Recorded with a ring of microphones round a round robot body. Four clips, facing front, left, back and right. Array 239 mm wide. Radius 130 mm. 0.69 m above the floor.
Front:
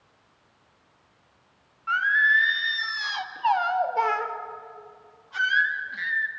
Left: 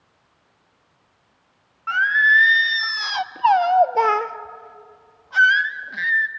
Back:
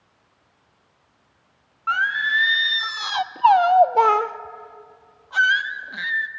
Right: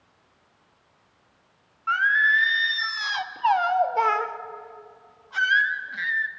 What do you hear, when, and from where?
1.9 s singing: 145° left, 0.7 m